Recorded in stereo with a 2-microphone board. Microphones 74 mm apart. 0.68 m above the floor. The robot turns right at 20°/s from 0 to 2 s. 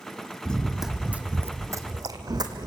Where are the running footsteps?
15° left (ahead or behind), 1.7 m; by 2.7 s 65° right (ahead or behind), 2 m.